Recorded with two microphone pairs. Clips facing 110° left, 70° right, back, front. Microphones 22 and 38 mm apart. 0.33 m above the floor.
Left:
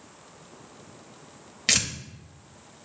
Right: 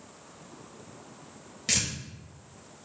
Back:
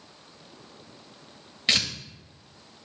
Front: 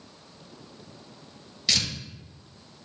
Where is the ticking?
No ticking in this recording.